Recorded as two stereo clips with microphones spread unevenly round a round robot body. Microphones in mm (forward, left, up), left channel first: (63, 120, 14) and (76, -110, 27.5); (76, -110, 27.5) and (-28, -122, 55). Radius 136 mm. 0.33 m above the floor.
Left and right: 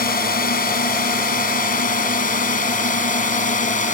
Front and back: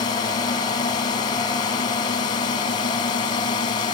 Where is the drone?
45° left; by 3.9 s 40° left.